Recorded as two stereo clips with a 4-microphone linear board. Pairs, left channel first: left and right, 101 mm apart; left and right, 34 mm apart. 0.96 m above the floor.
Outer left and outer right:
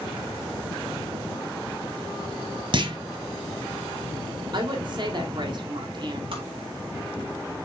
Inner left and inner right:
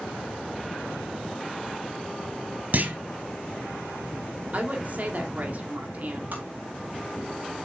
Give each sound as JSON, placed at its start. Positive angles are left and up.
{"t": 2.7, "sound": "a clunk", "side_deg": -55, "distance_m": 1.3}
{"t": 4.5, "sound": "a woman speaking", "side_deg": -50, "distance_m": 2.5}
{"t": 6.3, "sound": "tapping", "side_deg": -60, "distance_m": 4.0}